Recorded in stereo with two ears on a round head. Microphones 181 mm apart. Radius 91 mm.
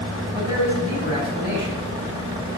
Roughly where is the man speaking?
Centre.